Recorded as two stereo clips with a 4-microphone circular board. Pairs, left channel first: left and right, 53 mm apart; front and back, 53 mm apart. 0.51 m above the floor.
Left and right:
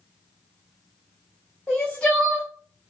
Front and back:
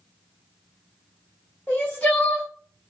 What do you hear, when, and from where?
1.7 s crying: 35° left, 1.2 m